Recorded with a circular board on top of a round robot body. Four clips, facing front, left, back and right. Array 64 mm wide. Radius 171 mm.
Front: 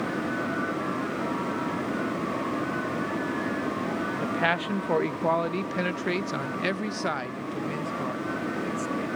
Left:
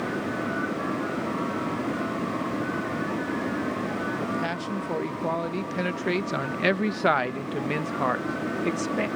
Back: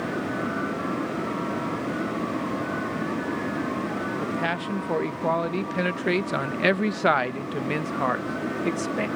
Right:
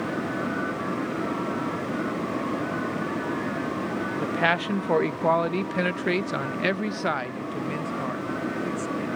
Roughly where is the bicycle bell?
I don't hear a bicycle bell.